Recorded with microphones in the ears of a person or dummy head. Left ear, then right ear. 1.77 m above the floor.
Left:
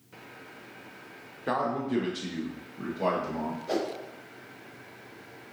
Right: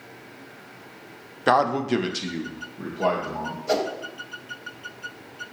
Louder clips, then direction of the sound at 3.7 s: Right 7 dB; 30° right (ahead or behind).